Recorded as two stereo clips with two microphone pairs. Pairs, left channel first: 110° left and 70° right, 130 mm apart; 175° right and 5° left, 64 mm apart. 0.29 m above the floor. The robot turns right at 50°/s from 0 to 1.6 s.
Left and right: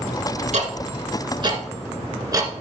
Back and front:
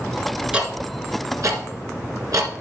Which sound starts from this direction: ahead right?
Ticking, at 0.5 s.